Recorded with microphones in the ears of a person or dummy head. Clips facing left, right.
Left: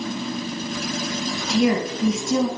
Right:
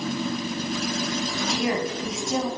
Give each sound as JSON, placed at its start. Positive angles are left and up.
{"t": 1.5, "sound": "a woman speaking", "side_deg": 55, "distance_m": 0.7}